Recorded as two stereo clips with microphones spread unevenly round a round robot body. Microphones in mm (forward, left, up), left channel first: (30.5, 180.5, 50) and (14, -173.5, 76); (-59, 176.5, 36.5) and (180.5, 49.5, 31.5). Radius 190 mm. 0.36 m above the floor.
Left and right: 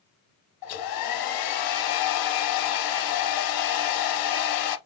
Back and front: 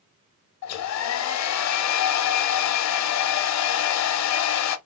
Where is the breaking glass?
No breaking glass in this recording.